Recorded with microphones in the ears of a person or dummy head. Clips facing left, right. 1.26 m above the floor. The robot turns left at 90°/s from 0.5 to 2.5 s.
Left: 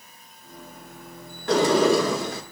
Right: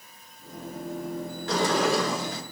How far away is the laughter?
No laughter in this recording.